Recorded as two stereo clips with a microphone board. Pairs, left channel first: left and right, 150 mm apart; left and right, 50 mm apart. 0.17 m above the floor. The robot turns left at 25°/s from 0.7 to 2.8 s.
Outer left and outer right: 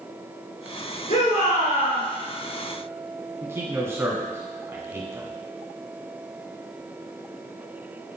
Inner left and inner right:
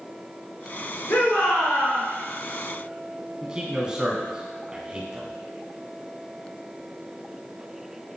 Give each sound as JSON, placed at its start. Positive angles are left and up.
{"t": 1.1, "sound": "a shout", "side_deg": 55, "distance_m": 3.0}
{"t": 3.4, "sound": "a man speaking", "side_deg": -15, "distance_m": 1.8}